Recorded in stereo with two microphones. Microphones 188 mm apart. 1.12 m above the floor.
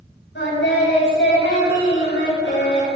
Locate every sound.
0.3 s singing: 80° left, 8 m